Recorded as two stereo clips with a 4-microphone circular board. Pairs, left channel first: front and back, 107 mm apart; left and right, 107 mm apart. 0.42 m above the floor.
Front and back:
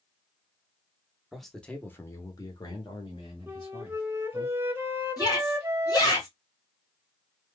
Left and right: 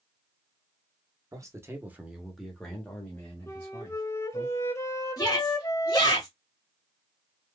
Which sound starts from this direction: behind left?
A flute, at 3.5 s.